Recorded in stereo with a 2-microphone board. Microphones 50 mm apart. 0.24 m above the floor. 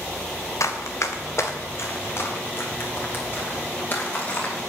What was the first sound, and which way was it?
Running footsteps, 80° left.